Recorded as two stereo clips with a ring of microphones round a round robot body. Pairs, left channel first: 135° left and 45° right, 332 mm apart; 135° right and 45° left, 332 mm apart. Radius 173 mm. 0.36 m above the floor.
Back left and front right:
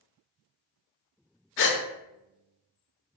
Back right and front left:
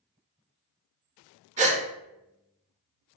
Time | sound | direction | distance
1.6 | a gasp | 105° left | 0.7 m